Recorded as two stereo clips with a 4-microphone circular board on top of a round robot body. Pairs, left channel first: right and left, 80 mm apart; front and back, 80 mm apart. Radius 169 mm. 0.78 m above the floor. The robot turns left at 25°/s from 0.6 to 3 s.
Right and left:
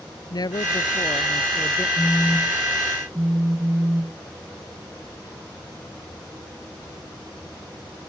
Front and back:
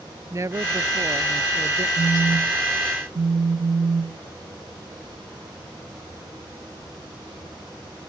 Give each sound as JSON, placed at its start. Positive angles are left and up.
{"t": 0.3, "sound": "a woman speaking", "azimuth_deg": -125}
{"t": 2.0, "sound": "a phone buzzing", "azimuth_deg": -170}